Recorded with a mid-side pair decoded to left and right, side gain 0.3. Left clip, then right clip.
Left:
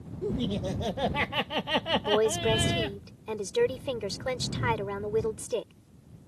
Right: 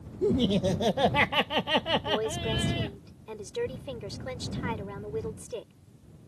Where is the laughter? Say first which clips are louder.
Right 6 dB; 65° right; by 3.0 s 65° left.